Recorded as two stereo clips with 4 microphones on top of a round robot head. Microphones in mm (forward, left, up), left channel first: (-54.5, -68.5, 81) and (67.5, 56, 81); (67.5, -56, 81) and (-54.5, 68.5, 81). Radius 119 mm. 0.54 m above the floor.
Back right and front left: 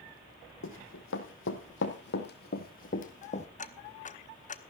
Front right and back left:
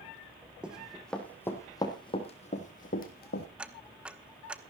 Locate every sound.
0.6 s running footsteps: 140° right, 1.9 m; by 3.5 s 80° right, 2.0 m
3.6 s ticking: 145° right, 1.0 m